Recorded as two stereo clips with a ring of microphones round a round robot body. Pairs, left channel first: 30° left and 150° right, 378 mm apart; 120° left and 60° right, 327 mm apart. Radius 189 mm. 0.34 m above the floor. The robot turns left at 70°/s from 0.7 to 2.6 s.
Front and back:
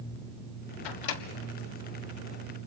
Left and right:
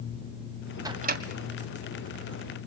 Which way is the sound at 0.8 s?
20° left.